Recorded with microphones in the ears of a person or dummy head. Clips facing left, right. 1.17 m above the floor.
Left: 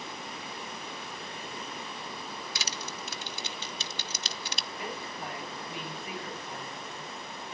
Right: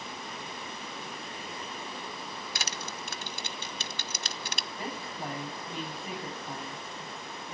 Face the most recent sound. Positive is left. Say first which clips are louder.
# right 1 dB
turn(degrees=-35)  # may be behind; listen again after turning